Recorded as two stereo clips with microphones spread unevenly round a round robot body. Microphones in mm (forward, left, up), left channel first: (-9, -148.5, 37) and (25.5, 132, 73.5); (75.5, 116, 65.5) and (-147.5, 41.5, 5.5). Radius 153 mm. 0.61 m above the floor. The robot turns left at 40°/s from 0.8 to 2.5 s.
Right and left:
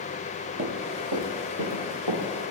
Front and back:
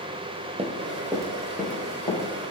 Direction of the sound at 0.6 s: 125° left.